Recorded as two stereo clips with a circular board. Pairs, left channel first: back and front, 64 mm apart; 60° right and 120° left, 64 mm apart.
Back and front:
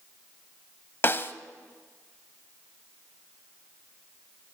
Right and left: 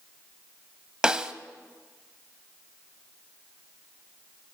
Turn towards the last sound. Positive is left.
turn(degrees=-170)